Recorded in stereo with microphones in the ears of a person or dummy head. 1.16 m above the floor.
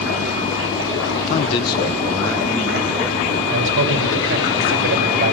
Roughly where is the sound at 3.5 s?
Right.